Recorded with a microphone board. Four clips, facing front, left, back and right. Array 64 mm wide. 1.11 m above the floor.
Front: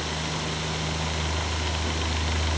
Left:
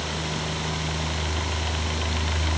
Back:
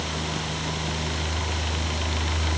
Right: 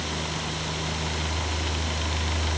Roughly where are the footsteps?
I don't hear footsteps.